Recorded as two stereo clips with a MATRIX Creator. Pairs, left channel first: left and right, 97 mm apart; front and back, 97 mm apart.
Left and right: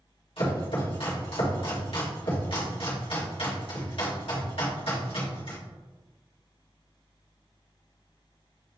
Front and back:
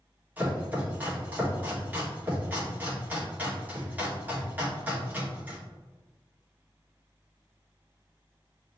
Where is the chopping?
105° left, 1.7 m.